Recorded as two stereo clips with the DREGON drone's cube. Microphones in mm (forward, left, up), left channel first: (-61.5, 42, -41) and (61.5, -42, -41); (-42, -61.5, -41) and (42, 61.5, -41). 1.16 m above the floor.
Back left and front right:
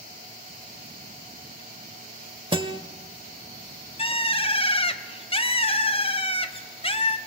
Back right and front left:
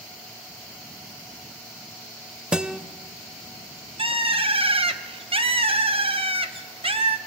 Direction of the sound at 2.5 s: 25° right.